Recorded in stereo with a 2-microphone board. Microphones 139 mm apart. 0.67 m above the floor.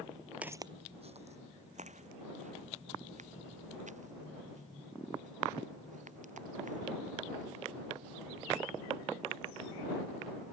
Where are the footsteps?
10° right (ahead or behind); by 7.5 s 70° right (ahead or behind).